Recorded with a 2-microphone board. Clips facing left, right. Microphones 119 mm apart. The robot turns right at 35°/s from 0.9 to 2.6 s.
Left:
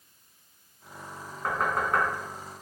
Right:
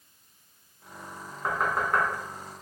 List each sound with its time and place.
1.4 s knocking: 5° right (ahead or behind), 1.1 m; by 2.0 s centre (ahead or behind), 1.1 m